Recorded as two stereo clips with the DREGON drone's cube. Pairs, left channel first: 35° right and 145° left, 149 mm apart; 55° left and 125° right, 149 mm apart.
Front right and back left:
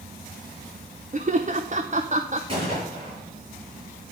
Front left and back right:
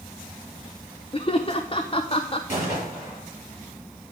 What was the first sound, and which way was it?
Laughter, 110° left.